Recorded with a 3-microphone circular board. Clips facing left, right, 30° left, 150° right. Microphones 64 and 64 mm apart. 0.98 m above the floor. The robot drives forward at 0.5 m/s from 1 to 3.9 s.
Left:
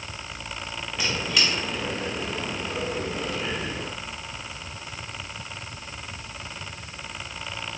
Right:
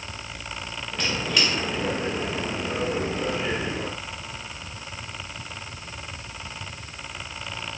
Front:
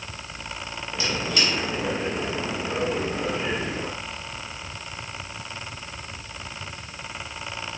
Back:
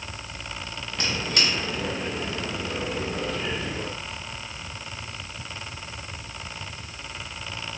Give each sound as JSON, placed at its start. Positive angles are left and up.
{"t": 1.0, "sound": "a squeak", "azimuth_deg": 175, "distance_m": 0.7}